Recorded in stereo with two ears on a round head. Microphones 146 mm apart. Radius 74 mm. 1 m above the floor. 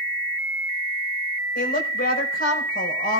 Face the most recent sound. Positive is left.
turn(degrees=65)  # may be behind; listen again after turning